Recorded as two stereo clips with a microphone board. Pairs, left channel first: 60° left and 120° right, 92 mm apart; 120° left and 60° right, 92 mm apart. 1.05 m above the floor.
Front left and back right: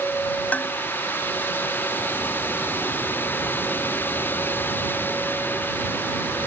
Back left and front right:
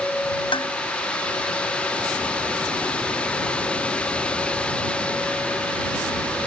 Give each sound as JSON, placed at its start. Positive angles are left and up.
{"t": 0.5, "sound": "dishes clattering", "azimuth_deg": 130}